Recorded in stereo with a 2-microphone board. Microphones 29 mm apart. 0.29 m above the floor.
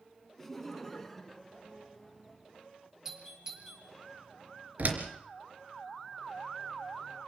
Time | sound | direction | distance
0.4 | laughter | 5° left (ahead or behind) | 3 m
3.0 | a doorbell | 20° right (ahead or behind) | 7 m
4.8 | a door slam | 60° right (ahead or behind) | 3.5 m